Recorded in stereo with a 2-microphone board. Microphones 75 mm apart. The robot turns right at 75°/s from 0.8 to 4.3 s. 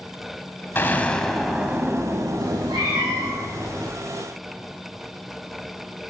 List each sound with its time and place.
0.8 s an explosion: 135° left, 0.9 m; by 3.4 s 30° right, 0.9 m
2.4 s a cat meowing: 110° right, 5.5 m; by 3.9 s 5° left, 5.5 m